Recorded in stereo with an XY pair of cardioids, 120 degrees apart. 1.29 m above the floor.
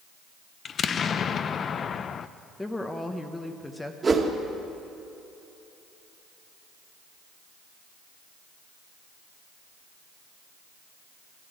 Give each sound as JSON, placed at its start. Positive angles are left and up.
{"t": 0.7, "sound": "an explosion", "azimuth_deg": 40, "distance_m": 0.5}
{"t": 2.6, "sound": "a woman speaking", "azimuth_deg": 10, "distance_m": 1.0}
{"t": 4.0, "sound": "a whoosh", "azimuth_deg": -25, "distance_m": 1.8}